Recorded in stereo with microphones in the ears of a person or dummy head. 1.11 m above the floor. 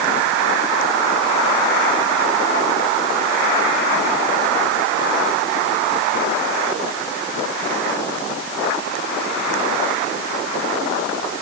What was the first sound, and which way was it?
Only background noise.